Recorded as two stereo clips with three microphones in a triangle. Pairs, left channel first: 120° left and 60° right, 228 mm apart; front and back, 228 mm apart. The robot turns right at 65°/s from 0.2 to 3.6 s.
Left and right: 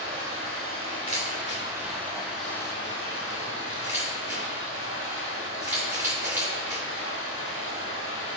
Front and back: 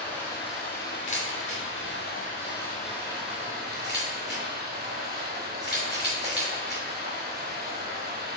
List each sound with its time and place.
0.0 s running water: 85° right, 2.5 m; by 8.4 s 140° left, 2.5 m
1.1 s a camera shutter: 50° left, 2.5 m; by 6.8 s 145° right, 2.5 m